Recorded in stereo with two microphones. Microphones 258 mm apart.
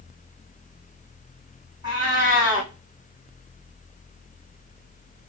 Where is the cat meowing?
15° right (ahead or behind), 4 m.